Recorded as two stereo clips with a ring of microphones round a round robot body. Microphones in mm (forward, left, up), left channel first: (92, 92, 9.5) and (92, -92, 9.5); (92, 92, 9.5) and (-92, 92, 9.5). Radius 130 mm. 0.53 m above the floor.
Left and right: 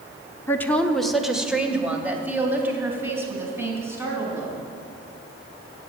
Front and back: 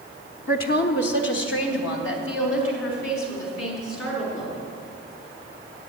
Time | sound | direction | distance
0.5 | a woman speaking | 15° left | 1.0 m